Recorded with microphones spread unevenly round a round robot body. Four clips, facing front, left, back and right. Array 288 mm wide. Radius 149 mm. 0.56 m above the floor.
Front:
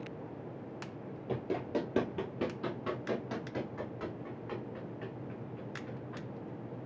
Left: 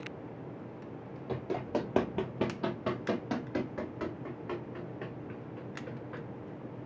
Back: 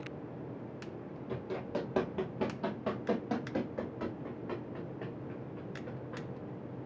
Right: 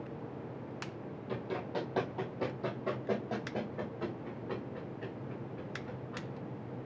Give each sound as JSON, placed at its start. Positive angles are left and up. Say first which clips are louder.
{"t": 1.3, "sound": "running footsteps", "louder": "left 4 dB, front 3 dB", "azimuth_deg": 25, "distance_m": 1.1}